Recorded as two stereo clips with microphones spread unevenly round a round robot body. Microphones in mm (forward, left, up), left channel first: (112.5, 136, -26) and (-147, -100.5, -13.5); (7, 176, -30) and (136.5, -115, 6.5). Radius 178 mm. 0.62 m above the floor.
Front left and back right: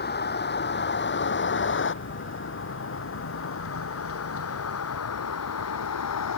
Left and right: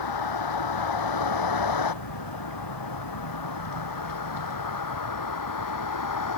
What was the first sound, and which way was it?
A vehicle, 105° left.